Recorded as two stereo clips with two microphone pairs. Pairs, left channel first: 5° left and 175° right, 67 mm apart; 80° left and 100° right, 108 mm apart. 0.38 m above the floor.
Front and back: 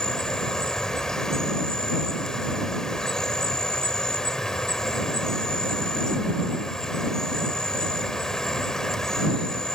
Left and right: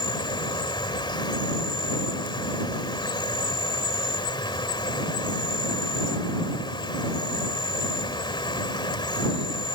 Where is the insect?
85° left.